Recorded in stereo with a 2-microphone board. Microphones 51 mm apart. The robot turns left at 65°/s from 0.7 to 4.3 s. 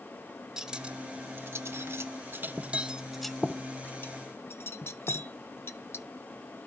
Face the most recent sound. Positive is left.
turn(degrees=50)  # may be behind; listen again after turning